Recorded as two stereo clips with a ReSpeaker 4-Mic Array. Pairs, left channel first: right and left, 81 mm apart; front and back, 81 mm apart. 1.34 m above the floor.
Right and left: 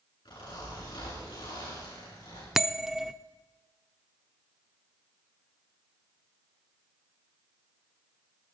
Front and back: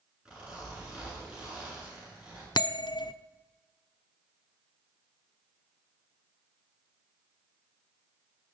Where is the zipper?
100° right, 10 m.